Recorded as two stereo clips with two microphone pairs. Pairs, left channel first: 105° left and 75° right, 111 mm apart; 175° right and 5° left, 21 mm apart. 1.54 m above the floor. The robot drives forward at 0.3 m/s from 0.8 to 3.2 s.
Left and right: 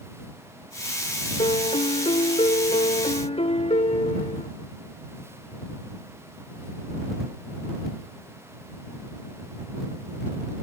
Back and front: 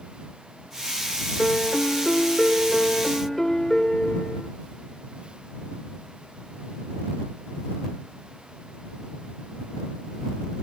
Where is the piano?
100° left; by 4.5 s 110° left.